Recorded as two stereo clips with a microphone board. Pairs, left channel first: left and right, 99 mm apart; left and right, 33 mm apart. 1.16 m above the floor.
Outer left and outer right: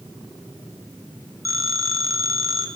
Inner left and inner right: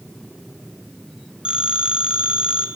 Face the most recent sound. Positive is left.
turn(degrees=-35)  # may be behind; listen again after turning